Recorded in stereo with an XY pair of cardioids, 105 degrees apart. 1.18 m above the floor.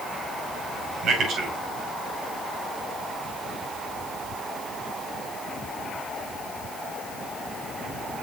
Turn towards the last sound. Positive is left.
turn(degrees=-65)